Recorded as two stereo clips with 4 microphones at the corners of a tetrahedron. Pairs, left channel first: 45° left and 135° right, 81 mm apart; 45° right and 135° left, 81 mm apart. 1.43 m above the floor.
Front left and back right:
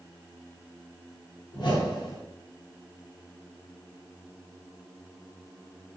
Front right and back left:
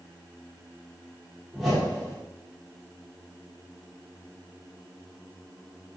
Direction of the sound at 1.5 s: 50° left.